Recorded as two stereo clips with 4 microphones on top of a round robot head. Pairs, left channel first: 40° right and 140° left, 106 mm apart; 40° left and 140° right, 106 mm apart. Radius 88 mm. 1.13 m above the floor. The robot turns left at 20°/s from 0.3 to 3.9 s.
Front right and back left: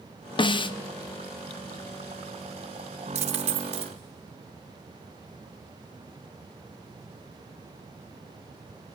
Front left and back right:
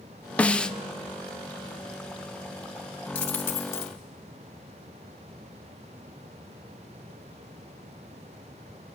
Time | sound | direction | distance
0.4 | a snare drum | 35° right | 0.7 m
3.1 | a dropped coin | 120° left | 0.8 m